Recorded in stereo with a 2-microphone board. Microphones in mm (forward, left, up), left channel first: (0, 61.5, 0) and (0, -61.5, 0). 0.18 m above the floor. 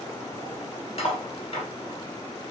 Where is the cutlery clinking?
50° left (ahead or behind), 1.8 m.